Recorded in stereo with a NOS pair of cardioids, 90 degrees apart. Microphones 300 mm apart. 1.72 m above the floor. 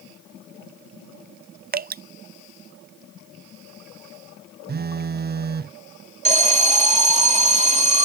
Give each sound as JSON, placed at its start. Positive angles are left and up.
{"t": 1.7, "sound": "dripping", "azimuth_deg": -30}
{"t": 4.7, "sound": "a phone buzzing", "azimuth_deg": -30}
{"t": 6.2, "sound": "an alarm", "azimuth_deg": -20}